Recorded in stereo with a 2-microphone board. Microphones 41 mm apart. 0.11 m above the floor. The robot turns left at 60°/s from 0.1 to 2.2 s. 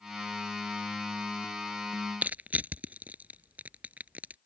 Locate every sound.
2.2 s crushing: 40° right (ahead or behind)